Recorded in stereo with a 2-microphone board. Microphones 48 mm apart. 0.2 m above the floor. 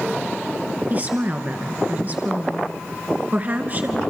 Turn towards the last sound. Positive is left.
turn(degrees=-35)  # may be behind; listen again after turning